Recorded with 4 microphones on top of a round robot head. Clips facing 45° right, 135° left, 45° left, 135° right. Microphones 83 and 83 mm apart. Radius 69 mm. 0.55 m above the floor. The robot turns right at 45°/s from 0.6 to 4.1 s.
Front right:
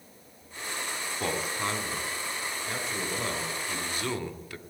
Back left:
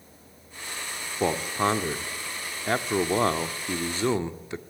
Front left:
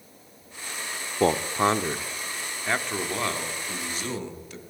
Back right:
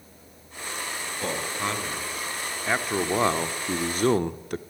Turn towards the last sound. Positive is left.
turn(degrees=-160)